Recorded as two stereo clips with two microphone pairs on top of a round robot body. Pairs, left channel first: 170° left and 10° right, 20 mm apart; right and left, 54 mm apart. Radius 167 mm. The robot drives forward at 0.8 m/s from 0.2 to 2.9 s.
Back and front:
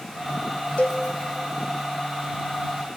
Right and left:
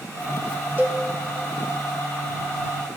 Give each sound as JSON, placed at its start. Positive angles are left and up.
{"t": 0.8, "sound": "a cowbell", "azimuth_deg": 150, "distance_m": 1.2}